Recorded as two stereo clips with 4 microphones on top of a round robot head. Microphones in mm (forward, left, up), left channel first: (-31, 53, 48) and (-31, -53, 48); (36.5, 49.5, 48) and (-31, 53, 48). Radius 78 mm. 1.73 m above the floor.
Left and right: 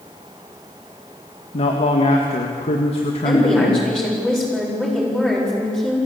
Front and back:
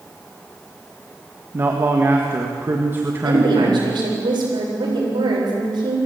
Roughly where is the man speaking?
Behind left.